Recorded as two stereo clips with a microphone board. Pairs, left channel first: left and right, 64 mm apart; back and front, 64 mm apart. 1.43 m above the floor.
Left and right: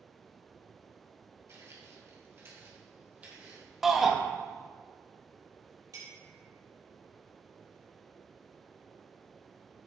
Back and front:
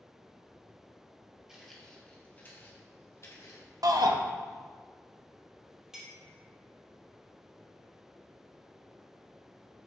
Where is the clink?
80° right, 2 m.